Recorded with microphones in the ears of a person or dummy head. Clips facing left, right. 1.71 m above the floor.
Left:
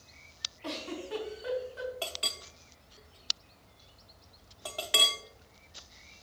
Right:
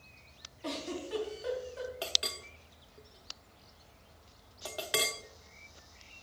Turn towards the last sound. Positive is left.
turn(degrees=-10)  # may be behind; listen again after turning